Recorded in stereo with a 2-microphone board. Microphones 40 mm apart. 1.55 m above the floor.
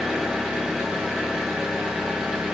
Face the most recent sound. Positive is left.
turn(degrees=-15)  # may be behind; listen again after turning